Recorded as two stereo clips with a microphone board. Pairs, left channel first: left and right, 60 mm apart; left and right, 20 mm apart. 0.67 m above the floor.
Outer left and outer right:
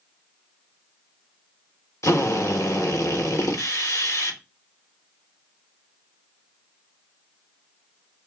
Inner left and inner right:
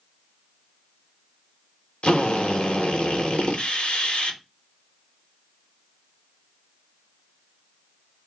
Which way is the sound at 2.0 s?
60° left (ahead or behind).